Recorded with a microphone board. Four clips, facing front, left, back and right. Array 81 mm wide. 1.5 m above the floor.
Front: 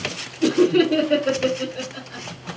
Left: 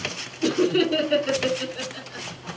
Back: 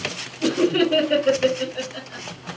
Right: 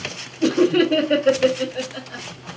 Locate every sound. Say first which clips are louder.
0.4 s laughter: right 4 dB, front 3 dB; 95° right, 1.7 m